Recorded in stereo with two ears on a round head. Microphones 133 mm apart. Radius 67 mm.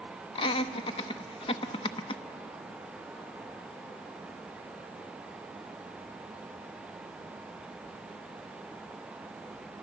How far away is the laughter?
About 0.8 m.